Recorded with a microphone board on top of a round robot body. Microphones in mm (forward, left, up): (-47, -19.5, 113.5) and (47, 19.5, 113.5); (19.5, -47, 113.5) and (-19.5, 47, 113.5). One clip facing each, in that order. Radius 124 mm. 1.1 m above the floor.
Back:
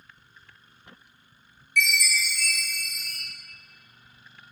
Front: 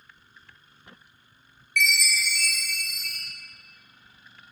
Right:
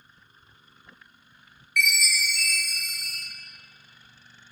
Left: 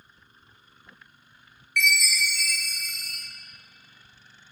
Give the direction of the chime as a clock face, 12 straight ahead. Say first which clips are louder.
Even, left 1 dB; 11 o'clock.